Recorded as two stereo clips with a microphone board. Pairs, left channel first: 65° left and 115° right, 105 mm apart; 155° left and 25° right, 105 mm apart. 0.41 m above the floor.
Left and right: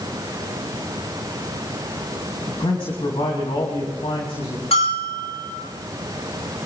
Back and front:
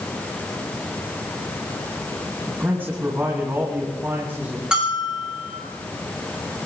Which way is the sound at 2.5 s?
45° left.